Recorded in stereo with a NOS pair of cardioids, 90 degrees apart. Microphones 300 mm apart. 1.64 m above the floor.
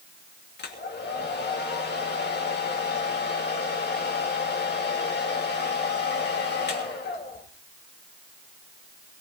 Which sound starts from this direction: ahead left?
A hair dryer, at 0.6 s.